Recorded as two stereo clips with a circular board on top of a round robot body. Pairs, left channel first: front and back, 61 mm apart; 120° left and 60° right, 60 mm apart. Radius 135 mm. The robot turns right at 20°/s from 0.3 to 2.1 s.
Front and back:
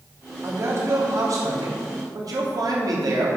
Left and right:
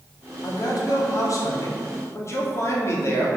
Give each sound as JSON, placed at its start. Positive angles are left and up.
{"t": 0.4, "sound": "a man speaking", "azimuth_deg": 130, "distance_m": 2.5}